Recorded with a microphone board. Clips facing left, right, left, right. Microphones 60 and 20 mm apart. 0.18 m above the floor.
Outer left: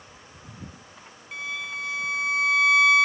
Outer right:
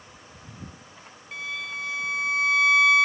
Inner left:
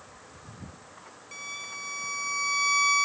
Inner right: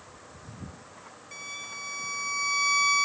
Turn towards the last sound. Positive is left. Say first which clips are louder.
# outer left 1 dB, inner left 1 dB
turn(degrees=5)  # may be behind; listen again after turning